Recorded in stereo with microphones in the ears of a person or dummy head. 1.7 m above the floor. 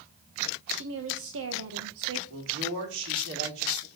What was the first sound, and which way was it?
A woman speaking, 70° right (ahead or behind).